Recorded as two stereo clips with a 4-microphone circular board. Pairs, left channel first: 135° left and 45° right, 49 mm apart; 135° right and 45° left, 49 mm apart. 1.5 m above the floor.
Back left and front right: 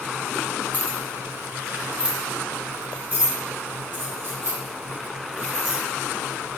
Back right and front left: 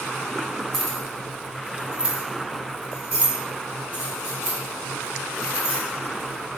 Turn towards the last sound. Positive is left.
turn(degrees=-15)